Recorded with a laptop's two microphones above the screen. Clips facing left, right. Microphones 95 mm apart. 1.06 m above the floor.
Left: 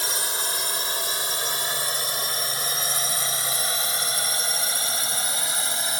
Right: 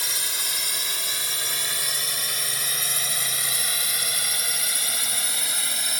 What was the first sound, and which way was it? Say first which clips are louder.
A drone: left 5 dB; 35° left (ahead or behind).